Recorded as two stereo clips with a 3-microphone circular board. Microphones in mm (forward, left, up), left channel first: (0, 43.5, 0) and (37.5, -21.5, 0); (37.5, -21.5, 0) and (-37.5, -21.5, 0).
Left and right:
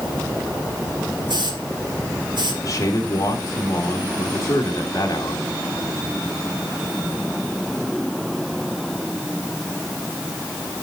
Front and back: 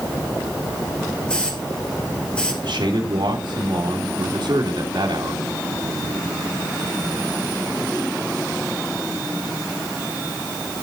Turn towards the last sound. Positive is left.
turn(degrees=170)